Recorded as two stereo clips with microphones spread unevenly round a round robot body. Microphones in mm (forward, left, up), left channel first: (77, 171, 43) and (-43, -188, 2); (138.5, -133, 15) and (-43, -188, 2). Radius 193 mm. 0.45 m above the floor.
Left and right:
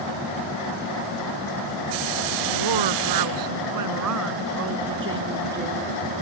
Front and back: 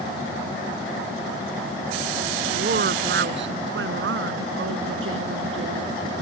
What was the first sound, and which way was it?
A woman speaking, 130° right.